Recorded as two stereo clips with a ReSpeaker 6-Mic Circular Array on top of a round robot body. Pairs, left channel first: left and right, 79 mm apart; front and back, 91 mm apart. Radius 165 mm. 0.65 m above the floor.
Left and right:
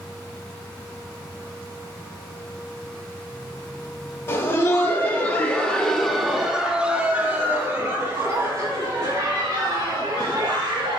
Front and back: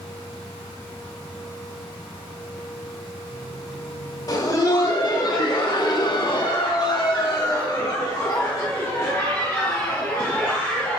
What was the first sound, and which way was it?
Laughter, 45° left.